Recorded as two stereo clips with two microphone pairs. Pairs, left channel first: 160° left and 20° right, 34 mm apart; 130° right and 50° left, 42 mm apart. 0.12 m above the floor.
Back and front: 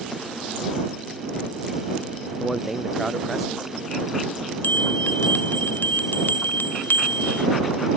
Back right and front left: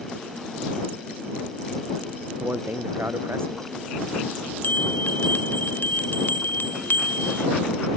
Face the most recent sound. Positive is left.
turn(degrees=-175)